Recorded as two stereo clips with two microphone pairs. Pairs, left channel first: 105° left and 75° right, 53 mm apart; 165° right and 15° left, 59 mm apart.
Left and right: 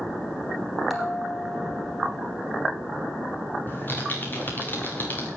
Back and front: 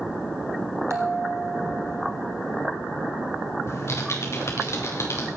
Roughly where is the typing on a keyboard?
Behind.